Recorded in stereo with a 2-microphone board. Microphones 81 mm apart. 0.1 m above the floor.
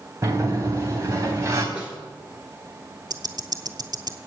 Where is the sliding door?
35° right (ahead or behind), 3 m.